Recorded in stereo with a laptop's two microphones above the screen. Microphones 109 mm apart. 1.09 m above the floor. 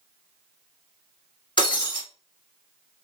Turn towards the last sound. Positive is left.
turn(degrees=45)  # may be behind; listen again after turning